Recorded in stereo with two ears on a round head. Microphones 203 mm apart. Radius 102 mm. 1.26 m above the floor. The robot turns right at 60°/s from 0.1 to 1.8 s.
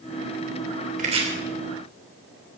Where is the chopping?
35° right (ahead or behind), 3 m; by 1.2 s 20° right (ahead or behind), 3 m.